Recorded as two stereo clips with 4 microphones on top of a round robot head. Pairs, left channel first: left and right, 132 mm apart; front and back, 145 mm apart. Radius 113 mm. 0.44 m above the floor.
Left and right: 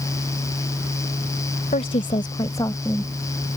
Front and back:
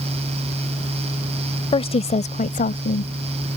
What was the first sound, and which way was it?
A woman speaking, 45° left.